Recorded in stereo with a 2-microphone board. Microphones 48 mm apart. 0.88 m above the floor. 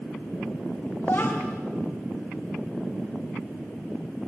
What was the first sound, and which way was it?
A child speaking, 55° left (ahead or behind).